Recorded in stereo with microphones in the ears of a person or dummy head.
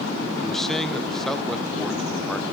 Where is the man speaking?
Centre (ahead or behind), 1.3 m.